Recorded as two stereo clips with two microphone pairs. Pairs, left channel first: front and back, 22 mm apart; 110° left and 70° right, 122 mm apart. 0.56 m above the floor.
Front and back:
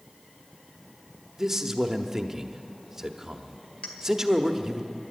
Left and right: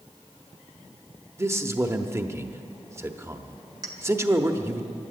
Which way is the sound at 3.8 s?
15° right.